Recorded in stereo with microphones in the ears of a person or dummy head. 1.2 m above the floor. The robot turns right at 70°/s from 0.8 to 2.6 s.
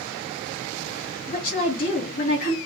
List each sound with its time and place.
1.3 s a woman speaking: 40° left, 1.4 m; by 2.6 s 135° left, 1.4 m